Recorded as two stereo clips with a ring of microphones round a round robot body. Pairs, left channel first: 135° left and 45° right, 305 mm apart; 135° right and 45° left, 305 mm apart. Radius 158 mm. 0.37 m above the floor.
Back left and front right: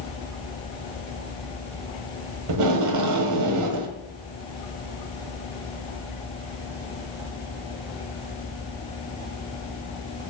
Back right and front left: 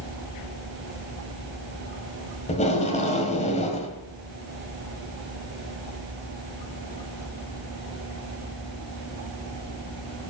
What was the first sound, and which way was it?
Tape being pulled, 70° right.